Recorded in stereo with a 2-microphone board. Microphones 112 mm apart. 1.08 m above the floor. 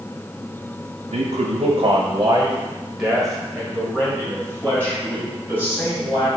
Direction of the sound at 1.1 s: 80° right.